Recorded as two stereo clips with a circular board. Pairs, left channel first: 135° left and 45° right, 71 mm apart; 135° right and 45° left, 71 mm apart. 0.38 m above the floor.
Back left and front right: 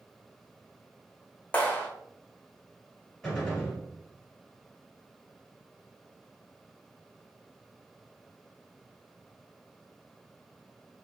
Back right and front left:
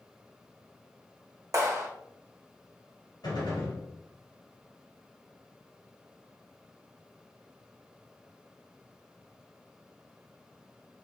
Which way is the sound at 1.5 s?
70° left.